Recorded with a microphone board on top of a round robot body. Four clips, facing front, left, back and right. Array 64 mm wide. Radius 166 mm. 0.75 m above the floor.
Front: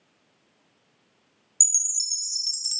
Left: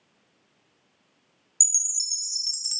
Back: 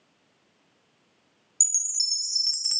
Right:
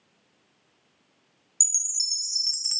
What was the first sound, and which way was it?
A chime, 150° right.